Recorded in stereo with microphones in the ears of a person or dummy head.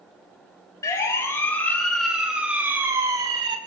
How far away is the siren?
About 5 m.